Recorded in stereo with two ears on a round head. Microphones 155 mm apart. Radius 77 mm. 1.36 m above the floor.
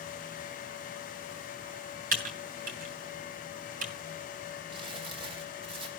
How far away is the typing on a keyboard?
About 2.5 m.